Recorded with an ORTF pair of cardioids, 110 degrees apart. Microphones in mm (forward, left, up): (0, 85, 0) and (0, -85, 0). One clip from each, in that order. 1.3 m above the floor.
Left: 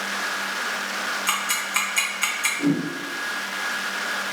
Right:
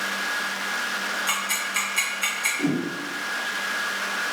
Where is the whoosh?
5° right, 0.9 m.